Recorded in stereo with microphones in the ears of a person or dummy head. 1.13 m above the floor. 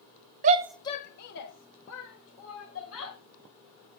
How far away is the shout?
About 0.6 m.